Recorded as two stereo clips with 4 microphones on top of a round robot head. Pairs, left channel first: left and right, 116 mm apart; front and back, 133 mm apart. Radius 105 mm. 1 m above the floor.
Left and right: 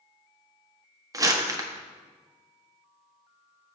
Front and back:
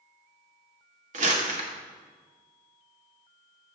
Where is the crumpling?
150° right, 1.3 m.